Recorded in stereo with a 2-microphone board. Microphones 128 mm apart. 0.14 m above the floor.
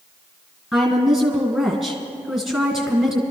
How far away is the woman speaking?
About 2.0 m.